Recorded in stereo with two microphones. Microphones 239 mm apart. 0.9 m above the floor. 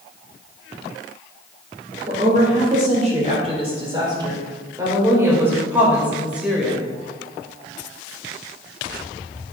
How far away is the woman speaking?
About 3 m.